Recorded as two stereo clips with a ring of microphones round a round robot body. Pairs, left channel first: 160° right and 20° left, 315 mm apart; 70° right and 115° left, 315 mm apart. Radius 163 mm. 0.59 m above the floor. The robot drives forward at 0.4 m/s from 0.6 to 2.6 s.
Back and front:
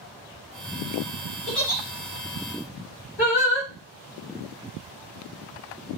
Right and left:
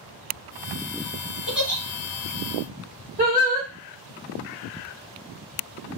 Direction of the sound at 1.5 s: 160° right.